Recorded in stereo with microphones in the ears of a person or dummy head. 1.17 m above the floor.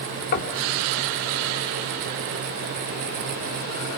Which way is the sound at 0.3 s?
50° left (ahead or behind).